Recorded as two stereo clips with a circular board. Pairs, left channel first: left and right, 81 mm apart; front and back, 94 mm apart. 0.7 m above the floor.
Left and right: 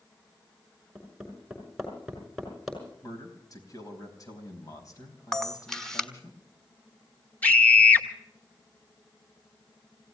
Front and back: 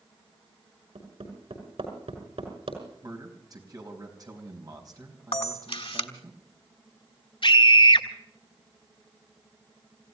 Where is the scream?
20° left, 2 m.